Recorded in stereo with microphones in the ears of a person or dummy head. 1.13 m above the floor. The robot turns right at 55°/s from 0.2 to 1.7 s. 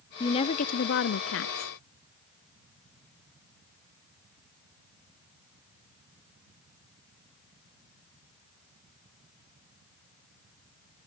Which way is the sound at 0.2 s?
25° left.